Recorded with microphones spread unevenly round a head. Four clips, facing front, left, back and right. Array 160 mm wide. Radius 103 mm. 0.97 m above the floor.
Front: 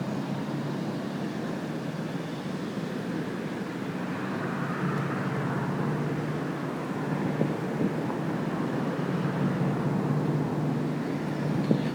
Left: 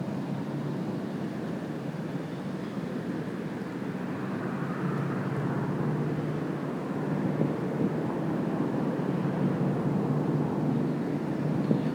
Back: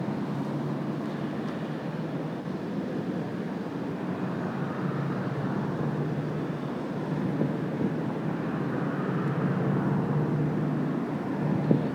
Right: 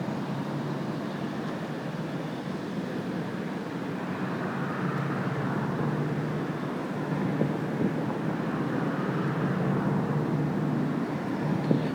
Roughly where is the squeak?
I don't hear a squeak.